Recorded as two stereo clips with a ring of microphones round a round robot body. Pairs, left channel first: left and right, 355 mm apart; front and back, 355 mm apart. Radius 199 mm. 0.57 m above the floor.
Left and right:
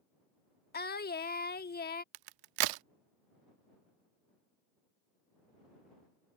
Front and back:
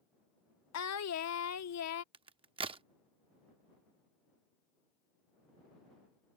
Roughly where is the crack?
Right.